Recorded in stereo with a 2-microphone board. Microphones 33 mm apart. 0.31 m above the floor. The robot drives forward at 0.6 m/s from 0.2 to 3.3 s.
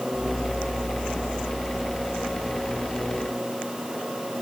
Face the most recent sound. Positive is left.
No sound to turn to.